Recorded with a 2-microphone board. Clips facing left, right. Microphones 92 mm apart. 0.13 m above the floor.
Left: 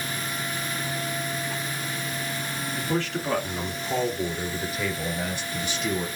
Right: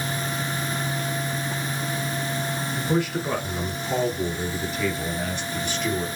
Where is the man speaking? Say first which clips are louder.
Right 3 dB; 15° right (ahead or behind), 1.7 m; by 6.1 s 15° left (ahead or behind), 3 m.